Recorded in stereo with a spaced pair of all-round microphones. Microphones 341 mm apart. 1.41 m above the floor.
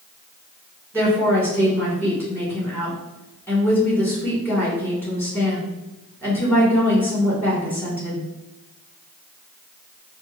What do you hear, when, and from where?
0.9 s a woman speaking: 5° left (ahead or behind), 2.0 m